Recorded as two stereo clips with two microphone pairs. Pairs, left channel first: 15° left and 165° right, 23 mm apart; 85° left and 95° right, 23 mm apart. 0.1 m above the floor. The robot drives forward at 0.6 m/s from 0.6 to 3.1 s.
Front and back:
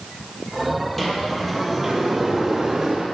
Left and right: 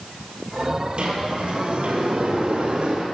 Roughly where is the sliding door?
Ahead right.